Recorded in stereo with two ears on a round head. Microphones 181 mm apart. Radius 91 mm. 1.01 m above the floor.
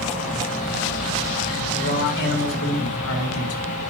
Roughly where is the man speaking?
Left.